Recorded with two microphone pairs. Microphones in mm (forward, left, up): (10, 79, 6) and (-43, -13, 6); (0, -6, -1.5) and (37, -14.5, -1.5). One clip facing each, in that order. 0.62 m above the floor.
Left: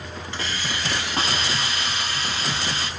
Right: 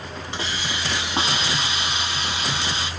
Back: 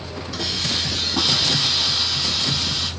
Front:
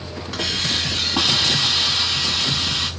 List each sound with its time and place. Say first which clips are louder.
0.3 s a hiss: right 1 dB, front 2 dB; 50° right, 1.1 m